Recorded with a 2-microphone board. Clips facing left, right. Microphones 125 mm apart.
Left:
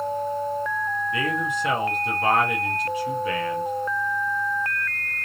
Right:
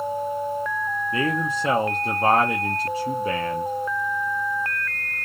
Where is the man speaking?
35° right (ahead or behind), 0.8 m.